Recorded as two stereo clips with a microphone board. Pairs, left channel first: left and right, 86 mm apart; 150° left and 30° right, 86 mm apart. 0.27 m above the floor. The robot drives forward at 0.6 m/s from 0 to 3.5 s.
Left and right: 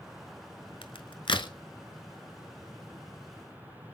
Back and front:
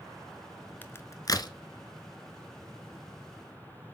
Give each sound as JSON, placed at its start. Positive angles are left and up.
{"t": 0.8, "sound": "a crack", "azimuth_deg": 80, "distance_m": 0.7}